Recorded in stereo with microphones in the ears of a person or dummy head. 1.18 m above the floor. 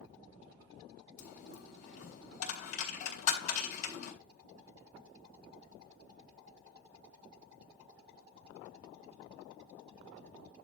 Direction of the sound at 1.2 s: 45° left (ahead or behind).